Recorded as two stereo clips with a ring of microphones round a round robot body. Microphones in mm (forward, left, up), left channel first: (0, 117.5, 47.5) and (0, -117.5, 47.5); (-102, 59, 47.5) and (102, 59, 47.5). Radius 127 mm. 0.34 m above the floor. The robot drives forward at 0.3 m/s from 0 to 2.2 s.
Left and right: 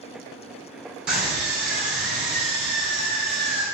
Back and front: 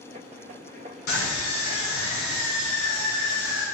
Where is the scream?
175° right, 4 m.